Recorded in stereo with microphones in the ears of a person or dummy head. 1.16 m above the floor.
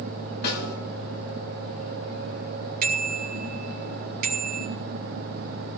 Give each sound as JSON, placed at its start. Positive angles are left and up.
{"t": 0.4, "sound": "a snare drum", "side_deg": 60, "distance_m": 7.5}
{"t": 2.8, "sound": "a bicycle bell", "side_deg": -45, "distance_m": 2.5}